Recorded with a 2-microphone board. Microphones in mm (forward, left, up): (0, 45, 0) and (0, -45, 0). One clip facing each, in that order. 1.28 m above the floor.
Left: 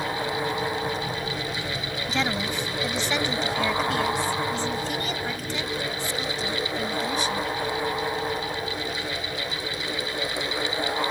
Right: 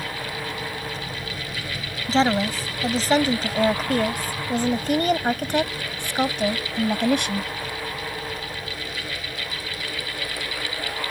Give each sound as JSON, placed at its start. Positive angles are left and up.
{"t": 2.1, "sound": "a woman speaking", "side_deg": -35}